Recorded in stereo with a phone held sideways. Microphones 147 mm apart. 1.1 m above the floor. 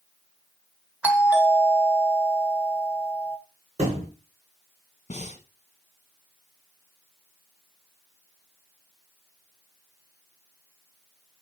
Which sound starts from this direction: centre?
A doorbell, at 1.0 s.